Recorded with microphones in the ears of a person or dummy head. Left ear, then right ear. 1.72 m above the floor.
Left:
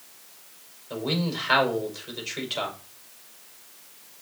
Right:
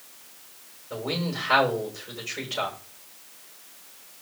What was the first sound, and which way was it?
A man speaking, 50° left (ahead or behind).